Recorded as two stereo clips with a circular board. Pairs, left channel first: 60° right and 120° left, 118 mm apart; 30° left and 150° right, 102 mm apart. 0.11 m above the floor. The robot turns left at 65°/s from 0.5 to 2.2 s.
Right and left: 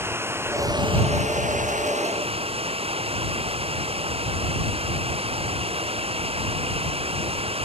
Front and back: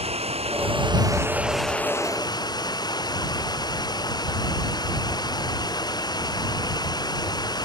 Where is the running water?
170° right; by 7.7 s 80° left.